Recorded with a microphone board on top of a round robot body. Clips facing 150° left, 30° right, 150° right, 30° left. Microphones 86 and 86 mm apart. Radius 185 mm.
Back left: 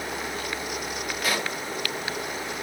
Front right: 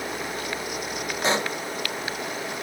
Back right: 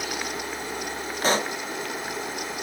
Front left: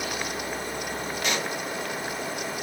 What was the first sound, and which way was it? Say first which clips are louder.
A pop: front right 4 dB, back right 6 dB; 95° right.